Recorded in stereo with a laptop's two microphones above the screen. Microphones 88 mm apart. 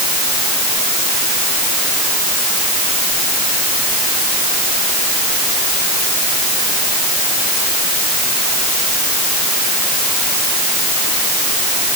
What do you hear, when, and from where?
Only background noise.